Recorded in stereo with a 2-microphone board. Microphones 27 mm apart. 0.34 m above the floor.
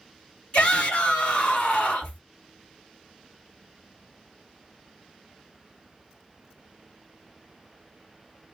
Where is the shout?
45° left (ahead or behind), 2 m.